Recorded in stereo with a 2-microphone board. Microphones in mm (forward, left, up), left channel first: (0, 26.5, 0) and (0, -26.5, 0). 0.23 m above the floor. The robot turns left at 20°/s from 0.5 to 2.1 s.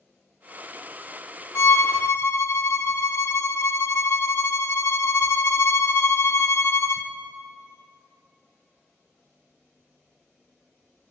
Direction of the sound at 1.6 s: 65° left (ahead or behind).